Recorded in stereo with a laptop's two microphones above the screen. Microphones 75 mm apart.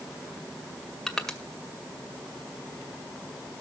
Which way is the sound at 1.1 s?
5° left (ahead or behind).